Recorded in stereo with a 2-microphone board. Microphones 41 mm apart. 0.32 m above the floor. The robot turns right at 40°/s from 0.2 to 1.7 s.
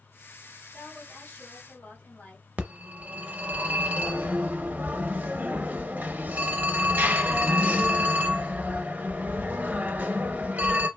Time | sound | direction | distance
0.7 | a woman speaking | 50° left | 1.9 m
2.6 | a phone ringing | 40° right (ahead or behind) | 0.6 m